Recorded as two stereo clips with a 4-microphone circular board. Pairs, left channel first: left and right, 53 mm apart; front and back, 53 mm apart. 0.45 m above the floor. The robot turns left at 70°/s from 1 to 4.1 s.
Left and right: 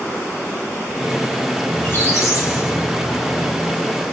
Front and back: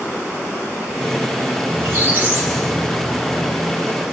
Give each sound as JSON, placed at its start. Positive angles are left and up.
{"t": 1.7, "sound": "a squeak", "azimuth_deg": 150, "distance_m": 2.5}